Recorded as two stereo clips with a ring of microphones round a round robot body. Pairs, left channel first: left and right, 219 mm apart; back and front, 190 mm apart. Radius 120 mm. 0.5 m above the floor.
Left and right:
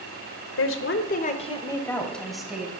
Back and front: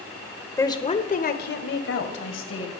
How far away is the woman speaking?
About 1.6 m.